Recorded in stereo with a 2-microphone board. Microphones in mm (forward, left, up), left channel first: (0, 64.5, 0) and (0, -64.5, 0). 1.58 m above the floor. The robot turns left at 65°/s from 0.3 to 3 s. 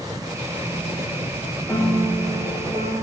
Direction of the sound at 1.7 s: 10° left.